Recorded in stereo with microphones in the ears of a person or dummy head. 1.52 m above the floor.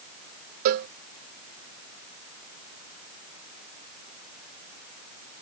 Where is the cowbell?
45° right (ahead or behind).